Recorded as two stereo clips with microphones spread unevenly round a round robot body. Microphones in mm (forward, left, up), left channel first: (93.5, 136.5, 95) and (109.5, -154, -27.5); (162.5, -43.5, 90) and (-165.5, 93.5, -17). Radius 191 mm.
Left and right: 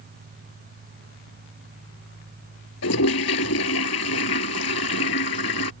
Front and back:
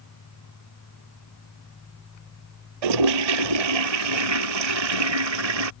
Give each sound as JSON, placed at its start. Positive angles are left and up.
{"t": 2.8, "sound": "a toilet flushing", "azimuth_deg": 145}